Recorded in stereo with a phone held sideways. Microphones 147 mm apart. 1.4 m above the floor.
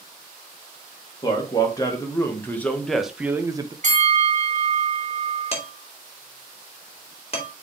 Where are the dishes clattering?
40° left (ahead or behind), 2.5 m.